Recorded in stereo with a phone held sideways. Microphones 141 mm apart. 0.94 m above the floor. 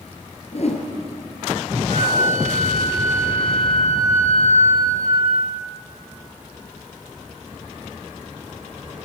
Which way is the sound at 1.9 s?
85° right.